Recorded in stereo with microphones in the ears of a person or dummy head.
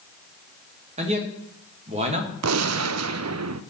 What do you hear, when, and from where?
1.0 s a man speaking: 30° right (ahead or behind), 1.6 m
2.4 s a gunshot: 75° right (ahead or behind), 0.5 m